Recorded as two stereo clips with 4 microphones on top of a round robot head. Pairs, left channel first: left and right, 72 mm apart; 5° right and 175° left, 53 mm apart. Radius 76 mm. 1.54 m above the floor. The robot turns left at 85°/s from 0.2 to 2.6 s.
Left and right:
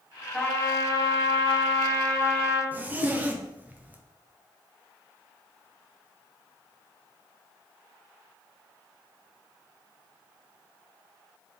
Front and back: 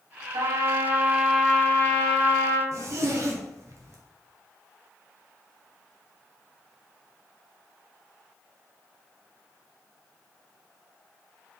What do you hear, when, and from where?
0.3 s a trumpet: 165° left, 1.5 m; by 2.6 s 25° right, 1.5 m
2.7 s a zipper: 155° right, 1.0 m